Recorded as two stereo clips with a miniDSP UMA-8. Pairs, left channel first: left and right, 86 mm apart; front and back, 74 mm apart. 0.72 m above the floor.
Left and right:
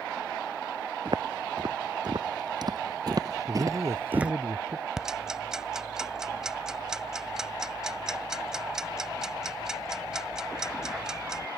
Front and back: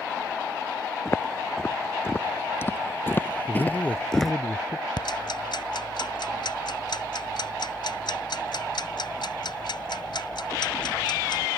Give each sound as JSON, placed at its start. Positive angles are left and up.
{"t": 1.1, "sound": "footsteps", "azimuth_deg": -55}
{"t": 3.5, "sound": "a man speaking", "azimuth_deg": -55}
{"t": 5.0, "sound": "ticking", "azimuth_deg": -5}